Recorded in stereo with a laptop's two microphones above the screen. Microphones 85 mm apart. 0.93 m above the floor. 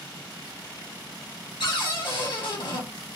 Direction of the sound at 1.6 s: 70° left (ahead or behind).